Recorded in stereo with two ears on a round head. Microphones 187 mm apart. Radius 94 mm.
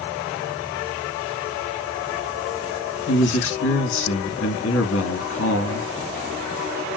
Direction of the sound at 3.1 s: 70° left (ahead or behind).